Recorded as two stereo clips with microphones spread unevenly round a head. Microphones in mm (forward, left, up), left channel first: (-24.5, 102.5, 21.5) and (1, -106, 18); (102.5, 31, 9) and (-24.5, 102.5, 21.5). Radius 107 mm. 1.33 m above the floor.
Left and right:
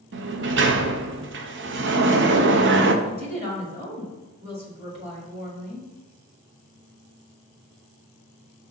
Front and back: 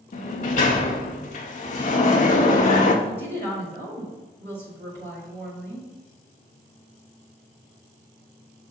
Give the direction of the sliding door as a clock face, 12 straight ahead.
2 o'clock.